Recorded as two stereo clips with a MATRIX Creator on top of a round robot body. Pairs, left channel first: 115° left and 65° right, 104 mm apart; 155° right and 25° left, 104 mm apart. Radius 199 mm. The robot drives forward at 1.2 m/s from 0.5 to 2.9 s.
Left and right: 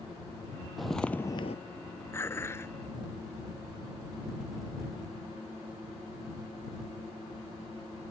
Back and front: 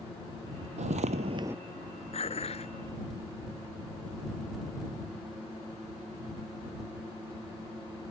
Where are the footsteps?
20° left; by 1.6 s 100° left.